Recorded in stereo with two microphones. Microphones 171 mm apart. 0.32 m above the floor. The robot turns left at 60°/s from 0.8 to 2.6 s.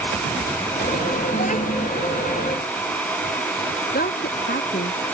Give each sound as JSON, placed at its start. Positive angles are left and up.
{"t": 1.3, "sound": "a child speaking", "azimuth_deg": 65}
{"t": 3.9, "sound": "a woman speaking", "side_deg": 65}